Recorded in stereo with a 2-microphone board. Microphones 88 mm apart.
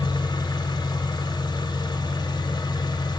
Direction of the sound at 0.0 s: 55° left (ahead or behind).